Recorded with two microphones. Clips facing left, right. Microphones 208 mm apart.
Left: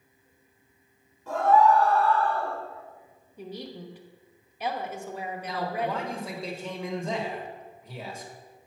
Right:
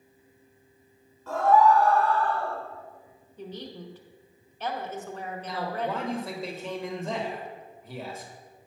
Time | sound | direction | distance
1.3 | a scream | 15° left (ahead or behind) | 1.6 m
3.4 | a woman speaking | 10° left (ahead or behind) | 0.9 m
5.4 | a man speaking | centre (ahead or behind) | 1.5 m